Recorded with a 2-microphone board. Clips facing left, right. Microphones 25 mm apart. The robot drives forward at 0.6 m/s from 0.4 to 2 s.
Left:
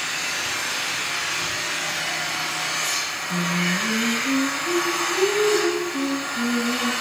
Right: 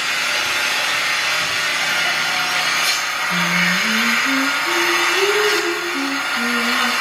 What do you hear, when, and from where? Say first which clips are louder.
0.0 s an engine running: right 7 dB; 70° right (ahead or behind), 3 m; by 7.0 s 65° right (ahead or behind), 3 m
3.3 s singing: right 6 dB; 5° left (ahead or behind), 2.5 m